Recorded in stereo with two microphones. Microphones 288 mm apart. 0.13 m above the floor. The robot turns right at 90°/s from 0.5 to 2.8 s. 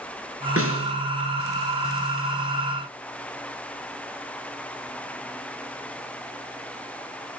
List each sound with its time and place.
0.6 s a snare drum: 85° right, 2 m; by 0.9 s 50° right, 2 m